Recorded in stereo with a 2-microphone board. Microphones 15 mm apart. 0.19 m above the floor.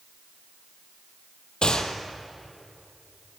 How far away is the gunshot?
About 1.8 m.